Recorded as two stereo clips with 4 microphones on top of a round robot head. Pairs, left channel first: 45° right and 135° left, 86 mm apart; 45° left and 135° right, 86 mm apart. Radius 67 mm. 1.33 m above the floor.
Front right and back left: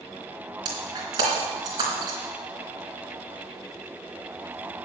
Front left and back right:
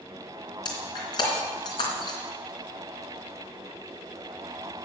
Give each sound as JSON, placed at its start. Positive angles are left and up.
{"t": 0.7, "sound": "breaking glass", "azimuth_deg": 85, "distance_m": 3.0}